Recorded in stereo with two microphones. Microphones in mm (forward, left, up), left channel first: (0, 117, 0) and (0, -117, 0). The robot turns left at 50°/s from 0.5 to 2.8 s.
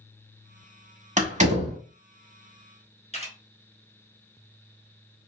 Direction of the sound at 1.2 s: 30° right (ahead or behind).